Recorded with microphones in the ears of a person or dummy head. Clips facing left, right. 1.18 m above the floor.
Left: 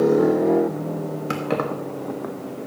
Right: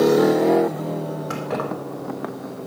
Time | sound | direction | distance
1.3 | keys jangling | 45° left (ahead or behind) | 1.3 m